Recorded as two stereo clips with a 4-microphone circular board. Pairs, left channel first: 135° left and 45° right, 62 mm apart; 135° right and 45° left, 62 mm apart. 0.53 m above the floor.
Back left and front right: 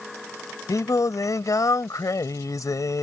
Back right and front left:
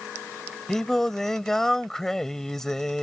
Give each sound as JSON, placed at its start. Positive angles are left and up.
{"t": 0.7, "sound": "singing", "azimuth_deg": 140}